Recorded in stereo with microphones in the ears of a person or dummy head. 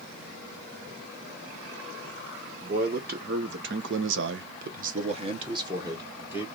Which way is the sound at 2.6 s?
45° right (ahead or behind).